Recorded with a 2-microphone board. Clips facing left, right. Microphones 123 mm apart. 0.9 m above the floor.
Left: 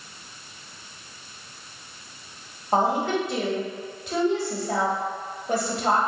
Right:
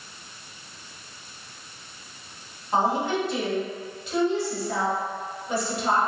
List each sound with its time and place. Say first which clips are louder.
2.7 s a woman speaking: left 1 dB; 50° left (ahead or behind), 1.5 m